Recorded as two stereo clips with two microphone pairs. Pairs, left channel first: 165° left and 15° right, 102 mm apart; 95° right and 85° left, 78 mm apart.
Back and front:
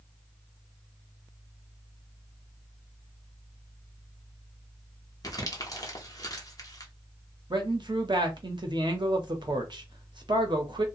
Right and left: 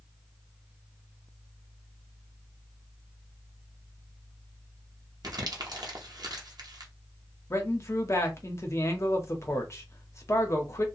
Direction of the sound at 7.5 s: 50° right.